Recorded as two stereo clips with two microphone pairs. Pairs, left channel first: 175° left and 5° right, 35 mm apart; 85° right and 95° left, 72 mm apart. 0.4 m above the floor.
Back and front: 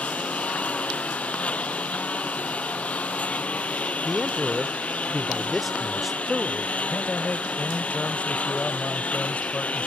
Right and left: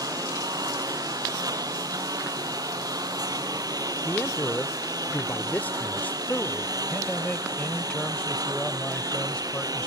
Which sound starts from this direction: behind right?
A man speaking, at 6.9 s.